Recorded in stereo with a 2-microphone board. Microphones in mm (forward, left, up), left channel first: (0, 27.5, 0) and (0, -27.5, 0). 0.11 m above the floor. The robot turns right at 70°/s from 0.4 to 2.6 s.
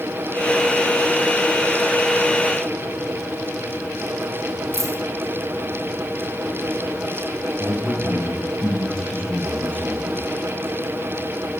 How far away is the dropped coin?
About 2.5 m.